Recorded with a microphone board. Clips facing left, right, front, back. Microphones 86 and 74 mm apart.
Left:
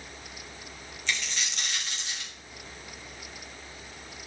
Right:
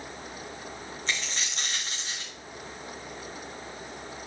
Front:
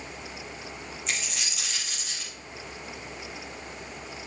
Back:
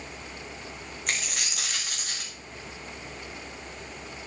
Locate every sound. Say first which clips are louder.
1.1 s a dropped coin: left 1 dB, back 2 dB; 145° right, 3 m